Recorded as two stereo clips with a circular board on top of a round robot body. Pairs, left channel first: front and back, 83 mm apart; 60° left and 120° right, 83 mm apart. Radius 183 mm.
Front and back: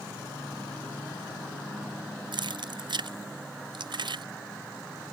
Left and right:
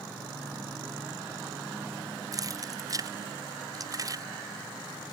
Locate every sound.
2.3 s keys jangling: 160° right